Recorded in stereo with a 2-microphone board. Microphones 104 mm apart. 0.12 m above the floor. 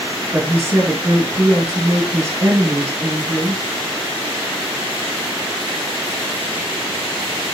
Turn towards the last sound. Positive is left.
turn(degrees=-30)  # may be behind; listen again after turning